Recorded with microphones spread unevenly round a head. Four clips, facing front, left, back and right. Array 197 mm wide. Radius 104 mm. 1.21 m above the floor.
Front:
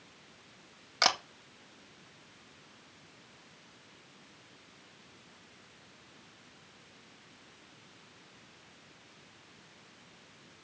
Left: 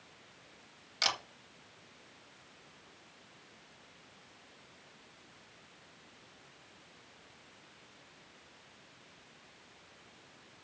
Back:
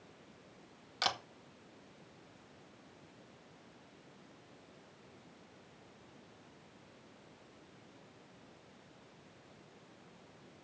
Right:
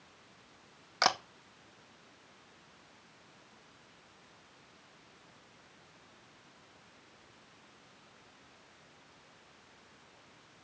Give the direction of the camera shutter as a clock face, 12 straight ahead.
1 o'clock.